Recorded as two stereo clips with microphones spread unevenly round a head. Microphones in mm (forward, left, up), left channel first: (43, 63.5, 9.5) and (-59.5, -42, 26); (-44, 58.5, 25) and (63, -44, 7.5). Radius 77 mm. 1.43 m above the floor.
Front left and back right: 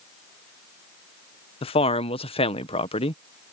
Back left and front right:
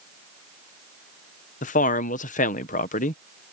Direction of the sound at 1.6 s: 95° left.